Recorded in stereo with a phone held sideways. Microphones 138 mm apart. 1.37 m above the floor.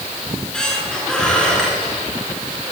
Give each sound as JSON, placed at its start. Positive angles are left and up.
{"t": 0.3, "sound": "a squeak", "side_deg": 5, "distance_m": 10.0}